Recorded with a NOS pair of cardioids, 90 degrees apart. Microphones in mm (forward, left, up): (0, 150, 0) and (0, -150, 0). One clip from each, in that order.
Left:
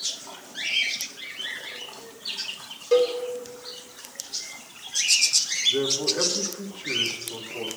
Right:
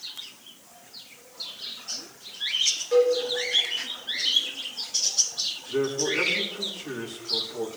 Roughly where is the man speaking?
Ahead.